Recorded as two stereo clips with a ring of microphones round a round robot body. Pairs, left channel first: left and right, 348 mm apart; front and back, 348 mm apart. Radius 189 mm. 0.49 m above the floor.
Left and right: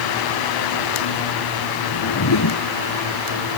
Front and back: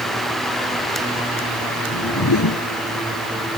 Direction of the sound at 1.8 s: 50° left.